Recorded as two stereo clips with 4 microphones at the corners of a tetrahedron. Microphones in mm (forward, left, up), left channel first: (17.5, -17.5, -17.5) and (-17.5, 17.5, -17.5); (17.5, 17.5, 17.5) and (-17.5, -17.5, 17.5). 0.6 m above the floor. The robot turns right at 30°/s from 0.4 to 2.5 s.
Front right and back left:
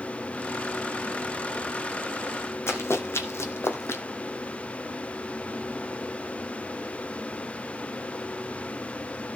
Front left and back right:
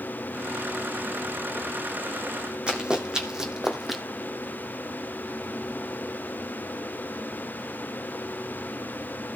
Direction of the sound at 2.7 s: 70° right.